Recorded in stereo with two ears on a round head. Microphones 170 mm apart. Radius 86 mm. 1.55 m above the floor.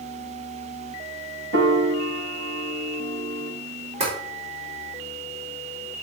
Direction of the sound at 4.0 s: 40° right (ahead or behind).